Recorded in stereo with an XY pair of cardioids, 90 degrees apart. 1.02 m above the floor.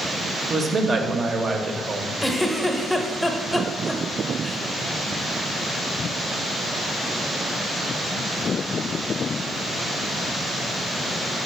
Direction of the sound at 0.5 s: 45° right.